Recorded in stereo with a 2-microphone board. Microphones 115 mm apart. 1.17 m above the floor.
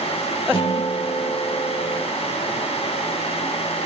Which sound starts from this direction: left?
A guitar, at 0.5 s.